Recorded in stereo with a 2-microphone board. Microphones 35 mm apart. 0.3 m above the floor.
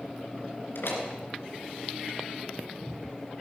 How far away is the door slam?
About 2.5 m.